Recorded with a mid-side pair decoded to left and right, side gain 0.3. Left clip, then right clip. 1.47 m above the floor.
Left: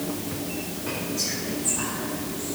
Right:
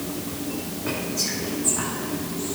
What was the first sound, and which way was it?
Whispering, 65° right.